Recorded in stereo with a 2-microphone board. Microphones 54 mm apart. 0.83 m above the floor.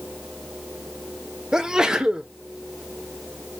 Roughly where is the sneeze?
Centre.